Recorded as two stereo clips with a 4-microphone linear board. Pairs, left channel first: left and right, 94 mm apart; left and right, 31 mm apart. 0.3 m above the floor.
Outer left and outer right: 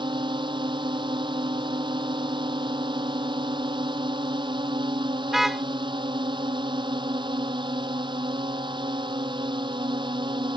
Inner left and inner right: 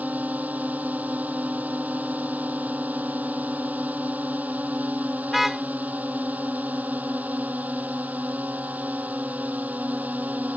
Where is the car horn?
5° right (ahead or behind).